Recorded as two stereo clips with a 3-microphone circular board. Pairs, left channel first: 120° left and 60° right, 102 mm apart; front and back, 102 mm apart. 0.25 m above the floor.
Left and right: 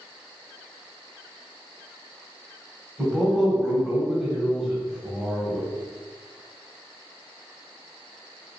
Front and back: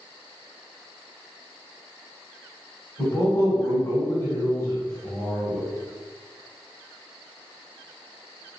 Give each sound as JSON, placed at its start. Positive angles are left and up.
{"t": 3.0, "sound": "a man speaking", "azimuth_deg": 25, "distance_m": 1.1}